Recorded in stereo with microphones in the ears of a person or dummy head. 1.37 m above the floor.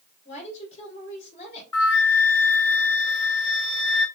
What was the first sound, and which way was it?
A woman speaking, 40° left (ahead or behind).